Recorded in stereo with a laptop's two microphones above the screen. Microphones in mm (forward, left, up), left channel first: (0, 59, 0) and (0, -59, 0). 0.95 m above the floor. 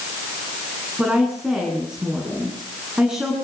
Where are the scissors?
No scissors in this recording.